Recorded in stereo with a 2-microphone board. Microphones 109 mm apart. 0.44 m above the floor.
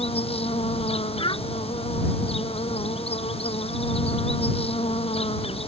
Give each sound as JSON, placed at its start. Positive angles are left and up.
{"t": 0.0, "sound": "an insect", "side_deg": 65}
{"t": 1.2, "sound": "a child speaking", "side_deg": 50}